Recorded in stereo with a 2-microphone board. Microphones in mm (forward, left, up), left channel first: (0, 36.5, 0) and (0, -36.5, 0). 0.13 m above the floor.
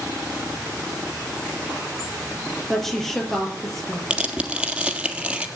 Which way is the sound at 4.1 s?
15° right (ahead or behind).